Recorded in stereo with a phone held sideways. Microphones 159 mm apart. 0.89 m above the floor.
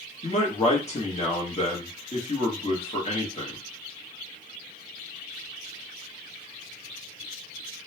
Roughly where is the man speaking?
Left.